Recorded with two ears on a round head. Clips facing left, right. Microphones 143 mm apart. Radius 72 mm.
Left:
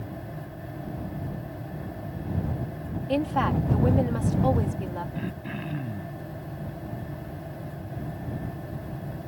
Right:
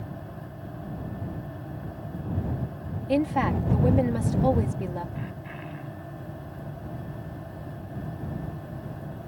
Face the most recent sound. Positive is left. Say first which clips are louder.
# left 4 dB
turn(degrees=45)  # may be behind; listen again after turning